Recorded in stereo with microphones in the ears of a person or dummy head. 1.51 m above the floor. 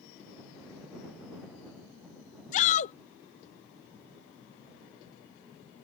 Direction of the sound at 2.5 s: 40° left (ahead or behind).